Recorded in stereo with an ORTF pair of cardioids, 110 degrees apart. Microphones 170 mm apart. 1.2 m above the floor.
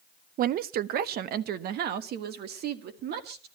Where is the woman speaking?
55° right, 0.6 m; by 3.5 s 75° right, 2.5 m.